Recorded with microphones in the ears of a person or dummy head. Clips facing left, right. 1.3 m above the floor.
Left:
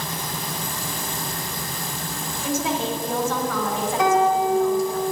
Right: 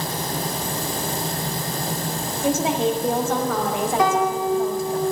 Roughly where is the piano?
Right.